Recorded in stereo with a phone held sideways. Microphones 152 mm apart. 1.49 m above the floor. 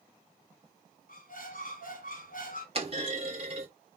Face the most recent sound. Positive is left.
turn(degrees=-40)  # may be behind; listen again after turning